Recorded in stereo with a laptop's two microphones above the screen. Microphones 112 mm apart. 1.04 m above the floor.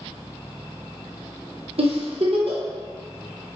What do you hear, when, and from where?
1.8 s a giggle: 60° right (ahead or behind), 0.9 m